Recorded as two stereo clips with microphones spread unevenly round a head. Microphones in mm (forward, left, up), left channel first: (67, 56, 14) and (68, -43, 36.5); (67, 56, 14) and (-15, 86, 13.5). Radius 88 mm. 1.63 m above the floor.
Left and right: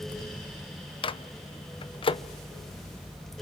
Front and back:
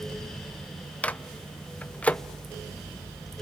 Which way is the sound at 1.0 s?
55° left.